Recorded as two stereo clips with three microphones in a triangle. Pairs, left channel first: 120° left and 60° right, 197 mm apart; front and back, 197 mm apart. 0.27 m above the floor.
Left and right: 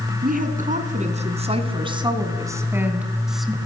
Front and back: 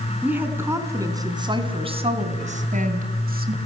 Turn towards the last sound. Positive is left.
turn(degrees=-150)